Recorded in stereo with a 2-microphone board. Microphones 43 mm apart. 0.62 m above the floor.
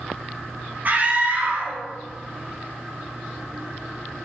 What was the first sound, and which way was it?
A scream, 40° right (ahead or behind).